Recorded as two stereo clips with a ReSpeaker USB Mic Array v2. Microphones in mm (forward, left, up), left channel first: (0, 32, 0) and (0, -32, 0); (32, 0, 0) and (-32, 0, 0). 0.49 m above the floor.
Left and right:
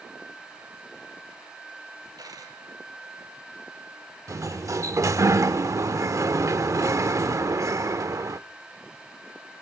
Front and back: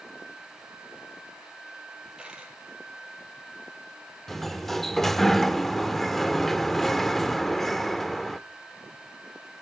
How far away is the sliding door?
About 0.7 m.